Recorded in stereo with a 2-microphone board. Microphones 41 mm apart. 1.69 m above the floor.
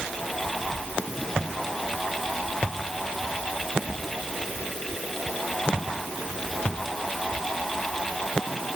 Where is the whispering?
I don't hear whispering.